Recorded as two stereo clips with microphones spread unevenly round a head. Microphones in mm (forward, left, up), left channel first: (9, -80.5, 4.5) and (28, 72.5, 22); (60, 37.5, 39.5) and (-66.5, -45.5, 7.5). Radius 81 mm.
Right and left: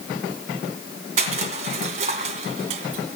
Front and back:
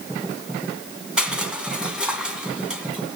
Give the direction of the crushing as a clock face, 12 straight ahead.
8 o'clock.